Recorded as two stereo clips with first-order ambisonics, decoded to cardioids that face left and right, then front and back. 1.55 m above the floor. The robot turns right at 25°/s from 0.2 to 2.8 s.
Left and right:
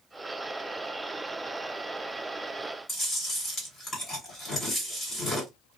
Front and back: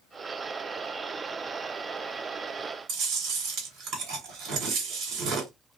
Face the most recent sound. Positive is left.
turn(degrees=155)